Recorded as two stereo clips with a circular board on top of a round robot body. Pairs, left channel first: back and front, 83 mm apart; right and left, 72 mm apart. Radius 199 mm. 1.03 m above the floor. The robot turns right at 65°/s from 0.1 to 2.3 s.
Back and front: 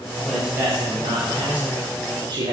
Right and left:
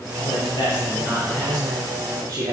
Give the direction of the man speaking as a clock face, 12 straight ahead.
3 o'clock.